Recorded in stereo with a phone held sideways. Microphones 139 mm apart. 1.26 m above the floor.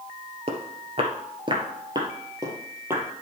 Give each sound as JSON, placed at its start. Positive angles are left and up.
{"t": 0.5, "sound": "footsteps", "side_deg": -45, "distance_m": 1.6}